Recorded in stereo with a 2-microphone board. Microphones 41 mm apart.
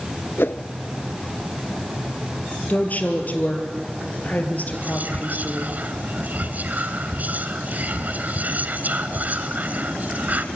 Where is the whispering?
45° right (ahead or behind), 1.5 m.